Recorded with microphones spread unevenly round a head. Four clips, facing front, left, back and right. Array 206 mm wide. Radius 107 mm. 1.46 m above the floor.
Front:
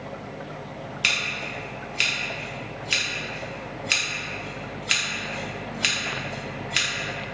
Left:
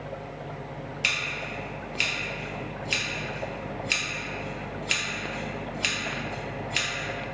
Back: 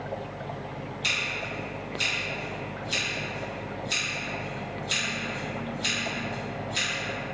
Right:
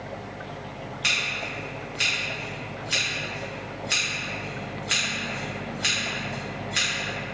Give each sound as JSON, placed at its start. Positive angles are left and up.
{"t": 1.0, "sound": "scissors", "azimuth_deg": -15, "distance_m": 0.6}